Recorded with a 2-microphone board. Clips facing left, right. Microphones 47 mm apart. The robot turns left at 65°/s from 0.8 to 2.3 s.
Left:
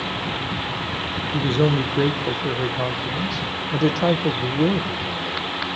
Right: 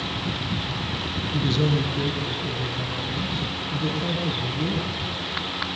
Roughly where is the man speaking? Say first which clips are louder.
Left 4 dB; behind.